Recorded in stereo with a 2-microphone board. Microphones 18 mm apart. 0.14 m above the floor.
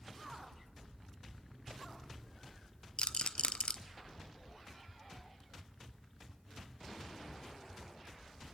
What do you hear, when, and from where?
3.0 s a rattle: 70° left (ahead or behind), 0.5 m